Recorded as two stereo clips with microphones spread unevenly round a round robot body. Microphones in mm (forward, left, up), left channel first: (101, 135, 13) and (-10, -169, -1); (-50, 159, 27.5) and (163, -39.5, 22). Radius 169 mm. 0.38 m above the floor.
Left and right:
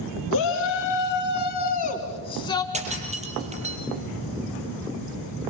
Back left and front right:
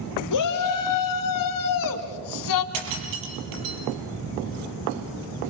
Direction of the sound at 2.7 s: 40° right.